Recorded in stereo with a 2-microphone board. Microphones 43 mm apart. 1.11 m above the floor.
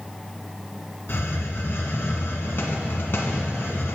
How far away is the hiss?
About 1.8 m.